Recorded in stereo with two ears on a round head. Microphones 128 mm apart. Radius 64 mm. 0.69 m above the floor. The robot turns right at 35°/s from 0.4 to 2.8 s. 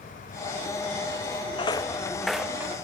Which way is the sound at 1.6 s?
35° left (ahead or behind).